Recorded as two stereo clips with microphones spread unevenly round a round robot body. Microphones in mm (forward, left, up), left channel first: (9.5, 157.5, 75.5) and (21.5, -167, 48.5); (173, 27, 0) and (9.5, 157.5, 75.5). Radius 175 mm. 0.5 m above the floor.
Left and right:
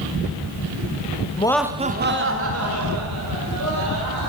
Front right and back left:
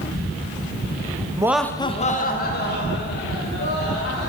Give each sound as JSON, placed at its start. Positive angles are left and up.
{"t": 1.4, "sound": "laughter", "azimuth_deg": 50, "distance_m": 0.9}